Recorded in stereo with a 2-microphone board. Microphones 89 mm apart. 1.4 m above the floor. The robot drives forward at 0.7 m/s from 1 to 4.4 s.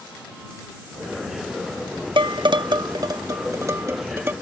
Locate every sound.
2.2 s dishes clattering: 70° right (ahead or behind); by 4.3 s 25° right (ahead or behind)